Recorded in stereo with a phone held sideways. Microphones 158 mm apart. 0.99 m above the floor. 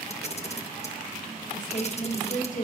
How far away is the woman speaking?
About 6.5 m.